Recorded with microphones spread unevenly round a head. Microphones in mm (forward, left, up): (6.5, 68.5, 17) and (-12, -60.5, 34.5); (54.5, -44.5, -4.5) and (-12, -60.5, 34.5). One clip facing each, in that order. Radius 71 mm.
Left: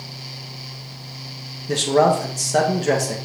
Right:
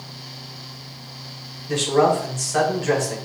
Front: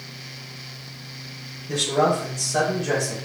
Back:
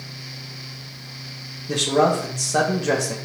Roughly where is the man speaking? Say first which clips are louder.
Left 1 dB, back 2 dB; behind left.